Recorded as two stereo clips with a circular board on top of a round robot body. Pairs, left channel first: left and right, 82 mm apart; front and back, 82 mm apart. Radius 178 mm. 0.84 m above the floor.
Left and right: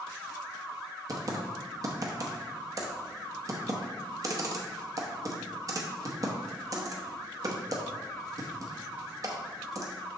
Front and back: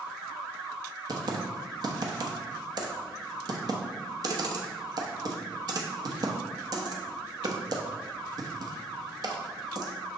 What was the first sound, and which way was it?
Typing on a keyboard, 140° right.